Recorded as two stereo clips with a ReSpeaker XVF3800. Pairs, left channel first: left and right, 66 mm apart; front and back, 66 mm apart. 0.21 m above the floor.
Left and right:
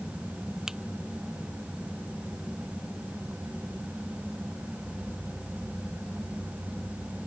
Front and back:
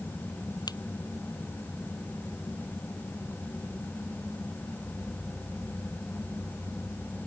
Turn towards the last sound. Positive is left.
turn(degrees=-10)